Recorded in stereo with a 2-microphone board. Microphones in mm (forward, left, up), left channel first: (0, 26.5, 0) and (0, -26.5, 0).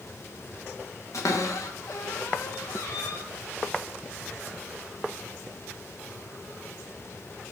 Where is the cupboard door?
80° left, 1.1 m.